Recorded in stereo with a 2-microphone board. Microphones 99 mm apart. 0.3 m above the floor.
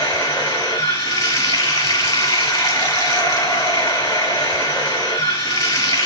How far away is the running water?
About 1.5 m.